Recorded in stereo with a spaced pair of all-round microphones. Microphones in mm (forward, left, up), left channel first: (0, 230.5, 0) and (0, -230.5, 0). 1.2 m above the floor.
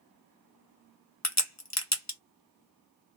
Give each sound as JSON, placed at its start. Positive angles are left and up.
{"t": 1.2, "sound": "a crack", "side_deg": 40, "distance_m": 0.9}